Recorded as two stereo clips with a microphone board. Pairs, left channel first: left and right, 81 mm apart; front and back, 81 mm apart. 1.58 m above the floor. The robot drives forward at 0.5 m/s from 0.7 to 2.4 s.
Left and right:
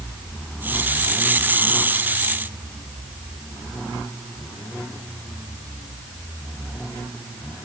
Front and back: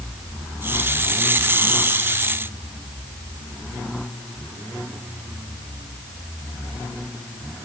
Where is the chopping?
I don't hear chopping.